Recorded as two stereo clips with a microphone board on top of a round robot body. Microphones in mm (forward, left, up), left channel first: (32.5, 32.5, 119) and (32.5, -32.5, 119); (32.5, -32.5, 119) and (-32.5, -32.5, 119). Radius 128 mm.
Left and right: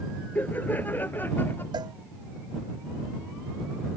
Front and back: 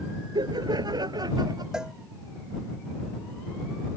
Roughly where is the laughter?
Behind.